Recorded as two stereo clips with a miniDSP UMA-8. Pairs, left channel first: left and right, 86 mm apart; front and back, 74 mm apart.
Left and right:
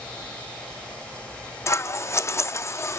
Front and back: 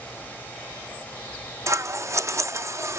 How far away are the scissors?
About 0.5 m.